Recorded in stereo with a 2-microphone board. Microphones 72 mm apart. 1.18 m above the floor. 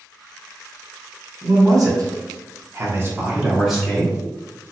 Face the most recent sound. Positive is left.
turn(degrees=15)  # may be behind; listen again after turning